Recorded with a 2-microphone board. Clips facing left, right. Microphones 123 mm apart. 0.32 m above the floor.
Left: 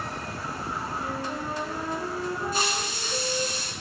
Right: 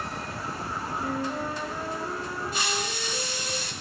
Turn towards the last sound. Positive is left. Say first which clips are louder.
# left 1 dB
turn(degrees=40)  # may be behind; listen again after turning